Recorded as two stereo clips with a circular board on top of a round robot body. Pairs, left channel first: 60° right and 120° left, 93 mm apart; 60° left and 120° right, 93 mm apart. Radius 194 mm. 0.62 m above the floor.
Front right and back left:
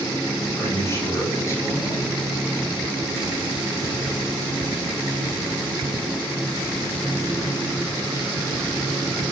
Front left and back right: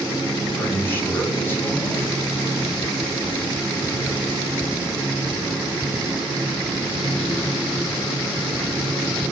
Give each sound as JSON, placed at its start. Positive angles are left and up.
{"t": 0.6, "sound": "a man speaking", "azimuth_deg": -5, "distance_m": 8.0}